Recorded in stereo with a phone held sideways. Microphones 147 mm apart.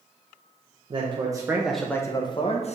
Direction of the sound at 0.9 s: 40° right (ahead or behind).